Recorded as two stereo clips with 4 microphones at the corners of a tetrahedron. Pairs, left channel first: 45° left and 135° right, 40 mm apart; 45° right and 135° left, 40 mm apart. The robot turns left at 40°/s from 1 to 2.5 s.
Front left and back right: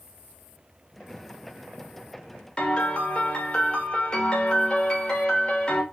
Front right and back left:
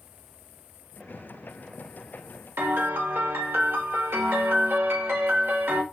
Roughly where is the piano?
Behind left.